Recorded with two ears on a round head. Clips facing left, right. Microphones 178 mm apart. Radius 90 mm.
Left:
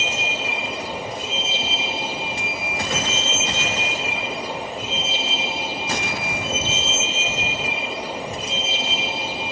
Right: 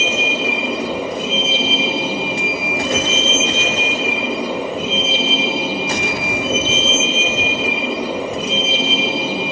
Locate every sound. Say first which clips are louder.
0.0 s a vehicle: right 8 dB; 65° right (ahead or behind)